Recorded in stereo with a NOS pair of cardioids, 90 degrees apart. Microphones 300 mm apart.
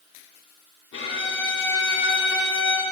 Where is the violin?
45° left, 4 m.